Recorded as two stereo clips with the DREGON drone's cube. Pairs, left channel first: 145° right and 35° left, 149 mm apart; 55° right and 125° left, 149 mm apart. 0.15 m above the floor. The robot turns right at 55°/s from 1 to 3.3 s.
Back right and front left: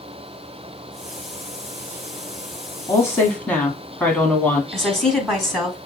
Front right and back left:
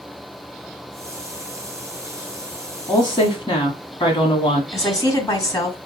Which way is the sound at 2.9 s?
95° right.